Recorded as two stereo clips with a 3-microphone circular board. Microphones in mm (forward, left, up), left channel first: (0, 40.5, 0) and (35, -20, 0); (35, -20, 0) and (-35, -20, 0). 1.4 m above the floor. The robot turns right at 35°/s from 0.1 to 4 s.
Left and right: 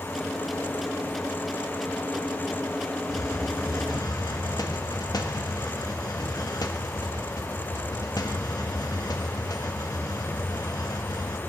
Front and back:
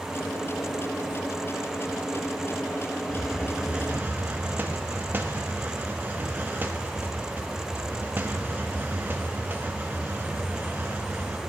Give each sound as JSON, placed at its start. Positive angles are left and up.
{"t": 3.1, "sound": "a hiss", "azimuth_deg": 90, "distance_m": 1.2}